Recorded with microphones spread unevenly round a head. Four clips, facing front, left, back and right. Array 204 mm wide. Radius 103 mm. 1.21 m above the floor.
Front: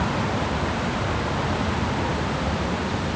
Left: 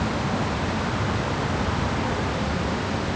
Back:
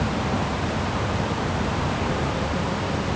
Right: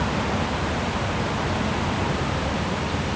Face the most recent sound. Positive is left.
No sound to turn to.